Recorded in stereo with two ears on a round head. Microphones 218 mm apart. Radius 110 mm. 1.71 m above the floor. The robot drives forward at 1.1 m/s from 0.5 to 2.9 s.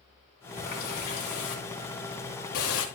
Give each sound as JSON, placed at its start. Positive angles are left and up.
{"t": 0.6, "sound": "a running tap", "side_deg": 40, "distance_m": 3.5}